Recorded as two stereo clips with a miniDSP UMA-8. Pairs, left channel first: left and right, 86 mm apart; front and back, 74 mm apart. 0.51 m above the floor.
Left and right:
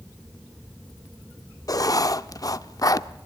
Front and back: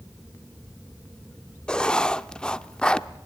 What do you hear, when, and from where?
1.7 s writing: 75° left, 0.6 m